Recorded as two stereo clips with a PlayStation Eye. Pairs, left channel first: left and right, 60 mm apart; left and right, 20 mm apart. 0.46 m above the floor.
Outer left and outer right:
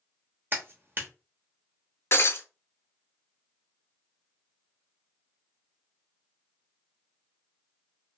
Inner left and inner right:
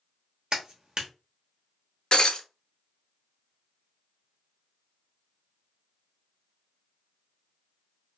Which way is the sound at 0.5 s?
40° right (ahead or behind).